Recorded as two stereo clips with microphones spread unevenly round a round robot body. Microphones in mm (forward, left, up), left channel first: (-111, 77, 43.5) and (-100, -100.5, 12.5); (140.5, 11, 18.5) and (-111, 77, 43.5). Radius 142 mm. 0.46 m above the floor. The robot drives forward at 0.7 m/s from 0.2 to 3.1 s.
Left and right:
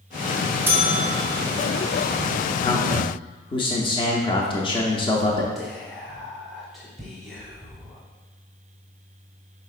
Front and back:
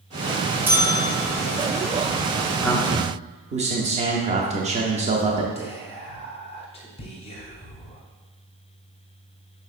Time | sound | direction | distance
0.7 | a bell | 110° right | 1.1 m
2.6 | a man speaking | 50° left | 0.7 m
5.5 | whispering | 20° right | 1.0 m